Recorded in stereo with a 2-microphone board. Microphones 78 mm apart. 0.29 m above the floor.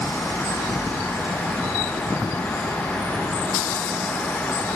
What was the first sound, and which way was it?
Only background noise.